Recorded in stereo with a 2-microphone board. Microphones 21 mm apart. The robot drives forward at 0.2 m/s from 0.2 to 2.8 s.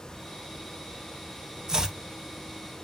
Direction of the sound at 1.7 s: 30° right (ahead or behind).